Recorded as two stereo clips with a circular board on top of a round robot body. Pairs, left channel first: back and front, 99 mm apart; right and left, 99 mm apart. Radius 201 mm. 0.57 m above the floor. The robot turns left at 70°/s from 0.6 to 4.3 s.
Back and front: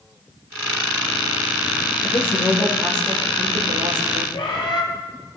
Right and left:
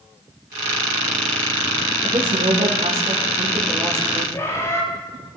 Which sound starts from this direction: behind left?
A woman speaking, at 2.0 s.